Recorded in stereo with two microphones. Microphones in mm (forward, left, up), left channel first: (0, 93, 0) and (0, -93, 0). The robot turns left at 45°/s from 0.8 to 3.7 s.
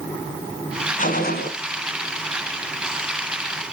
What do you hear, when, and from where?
1.0 s a gunshot: 45° left (ahead or behind), 1.2 m; by 1.5 s 60° left (ahead or behind), 1.2 m